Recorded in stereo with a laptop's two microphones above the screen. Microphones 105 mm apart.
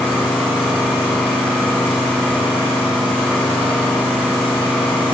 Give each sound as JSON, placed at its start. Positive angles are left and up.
{"t": 0.0, "sound": "an engine running", "side_deg": 15, "distance_m": 2.5}